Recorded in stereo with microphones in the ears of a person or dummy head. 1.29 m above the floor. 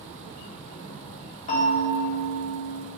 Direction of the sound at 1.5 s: 35° left (ahead or behind).